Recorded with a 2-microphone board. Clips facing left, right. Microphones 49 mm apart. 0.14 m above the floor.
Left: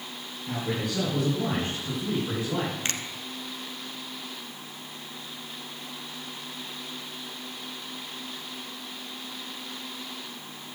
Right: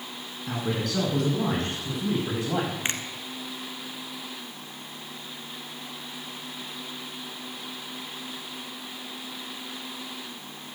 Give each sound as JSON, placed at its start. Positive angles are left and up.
{"t": 0.5, "sound": "a man speaking", "side_deg": -75, "distance_m": 7.0}
{"t": 2.9, "sound": "a finger snap", "side_deg": -20, "distance_m": 1.2}